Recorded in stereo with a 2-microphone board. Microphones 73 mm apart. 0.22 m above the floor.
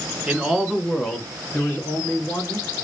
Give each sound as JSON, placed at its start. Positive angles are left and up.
{"t": 0.3, "sound": "a man speaking", "side_deg": -15, "distance_m": 2.0}